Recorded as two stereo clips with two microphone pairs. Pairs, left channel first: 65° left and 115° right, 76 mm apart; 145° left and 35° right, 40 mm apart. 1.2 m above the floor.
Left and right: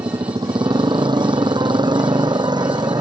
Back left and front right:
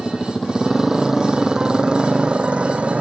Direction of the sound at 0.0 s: 130° right.